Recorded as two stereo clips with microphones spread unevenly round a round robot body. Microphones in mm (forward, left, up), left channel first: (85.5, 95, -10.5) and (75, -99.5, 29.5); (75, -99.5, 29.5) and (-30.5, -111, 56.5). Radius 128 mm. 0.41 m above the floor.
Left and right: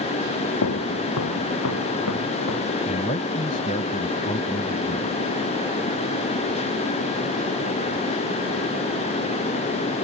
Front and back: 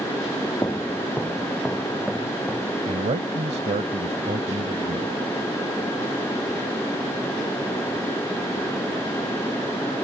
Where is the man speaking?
150° left.